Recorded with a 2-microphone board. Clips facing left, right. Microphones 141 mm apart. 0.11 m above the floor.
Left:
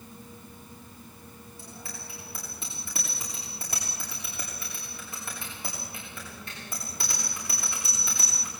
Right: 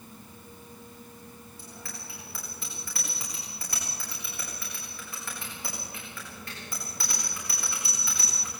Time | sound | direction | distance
1.6 | a bicycle bell | 20° left (ahead or behind) | 8.5 m